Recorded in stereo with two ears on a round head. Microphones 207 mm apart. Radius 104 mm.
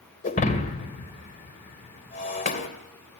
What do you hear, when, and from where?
0.2 s breaking glass: 35° left (ahead or behind), 2.5 m